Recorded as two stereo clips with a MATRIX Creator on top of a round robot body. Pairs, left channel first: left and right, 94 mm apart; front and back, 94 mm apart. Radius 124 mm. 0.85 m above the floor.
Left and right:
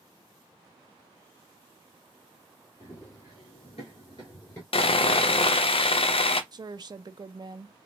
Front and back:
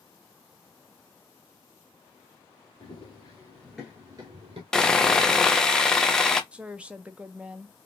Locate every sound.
2.8 s running footsteps: 35° left, 1.6 m; by 4.6 s 160° left, 1.3 m
4.7 s sawing: 85° left, 0.6 m
6.5 s a woman speaking: 105° right, 0.5 m